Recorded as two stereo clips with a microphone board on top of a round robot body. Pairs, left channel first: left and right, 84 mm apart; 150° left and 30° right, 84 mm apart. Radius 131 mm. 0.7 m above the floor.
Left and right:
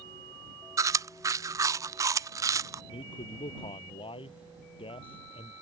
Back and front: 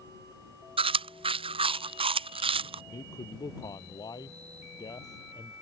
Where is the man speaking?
105° left.